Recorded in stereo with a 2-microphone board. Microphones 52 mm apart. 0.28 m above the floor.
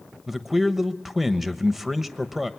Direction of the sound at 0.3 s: 5° right (ahead or behind).